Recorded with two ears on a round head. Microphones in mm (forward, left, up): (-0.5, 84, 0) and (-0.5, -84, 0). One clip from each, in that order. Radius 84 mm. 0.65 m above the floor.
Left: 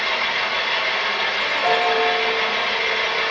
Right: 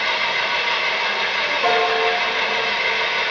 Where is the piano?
65° right (ahead or behind), 1.1 m.